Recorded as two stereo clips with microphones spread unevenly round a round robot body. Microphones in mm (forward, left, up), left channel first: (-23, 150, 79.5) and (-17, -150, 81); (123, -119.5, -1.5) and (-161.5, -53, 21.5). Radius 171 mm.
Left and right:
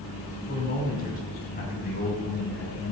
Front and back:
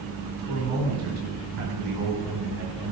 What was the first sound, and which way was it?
A man speaking, 155° left.